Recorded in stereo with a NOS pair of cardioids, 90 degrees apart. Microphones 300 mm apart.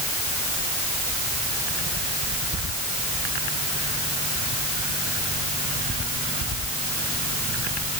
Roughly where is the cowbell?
No cowbell in this recording.